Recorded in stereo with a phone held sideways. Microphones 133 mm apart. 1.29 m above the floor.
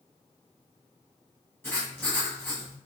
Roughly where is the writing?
Centre.